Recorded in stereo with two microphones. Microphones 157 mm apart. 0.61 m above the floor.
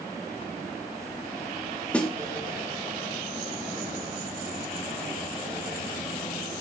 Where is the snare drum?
10° left (ahead or behind), 0.9 m.